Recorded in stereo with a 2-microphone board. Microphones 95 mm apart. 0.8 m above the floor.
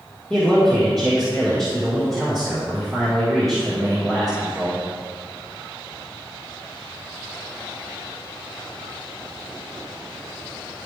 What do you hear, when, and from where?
0.3 s a man speaking: 5° left (ahead or behind), 1.7 m